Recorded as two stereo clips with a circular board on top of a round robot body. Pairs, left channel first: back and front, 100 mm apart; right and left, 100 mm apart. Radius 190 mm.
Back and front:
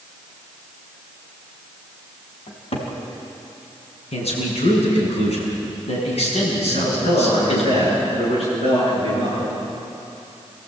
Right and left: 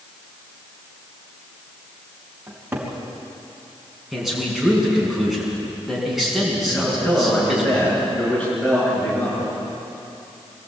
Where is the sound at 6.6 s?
170° right, 8.5 m.